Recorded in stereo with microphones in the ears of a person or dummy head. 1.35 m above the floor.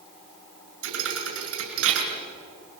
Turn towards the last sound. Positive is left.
turn(degrees=-75)  # may be behind; listen again after turning